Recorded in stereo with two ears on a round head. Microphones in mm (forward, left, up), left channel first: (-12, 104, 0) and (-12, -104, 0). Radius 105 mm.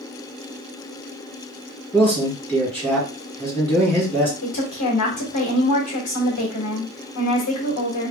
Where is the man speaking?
10° left (ahead or behind), 2 m.